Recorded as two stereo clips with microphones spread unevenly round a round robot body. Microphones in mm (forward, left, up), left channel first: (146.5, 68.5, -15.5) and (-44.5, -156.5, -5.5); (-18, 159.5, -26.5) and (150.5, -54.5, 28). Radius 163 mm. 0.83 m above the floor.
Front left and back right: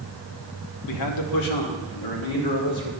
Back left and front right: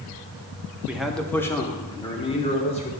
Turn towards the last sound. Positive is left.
turn(degrees=65)